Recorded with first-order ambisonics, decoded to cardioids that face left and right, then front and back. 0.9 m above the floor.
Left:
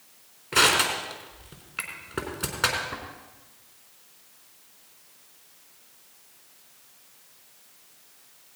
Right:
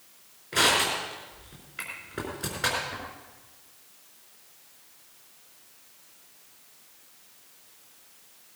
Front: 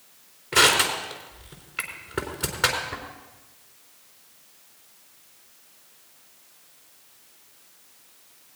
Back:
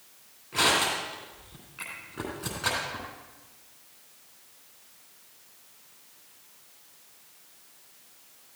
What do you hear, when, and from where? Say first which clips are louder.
0.5 s crushing: left 2 dB, front 5 dB; 45° left, 4 m